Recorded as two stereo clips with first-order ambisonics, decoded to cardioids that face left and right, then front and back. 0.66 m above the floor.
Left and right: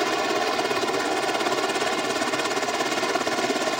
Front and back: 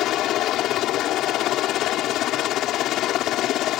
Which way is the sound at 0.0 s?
5° right.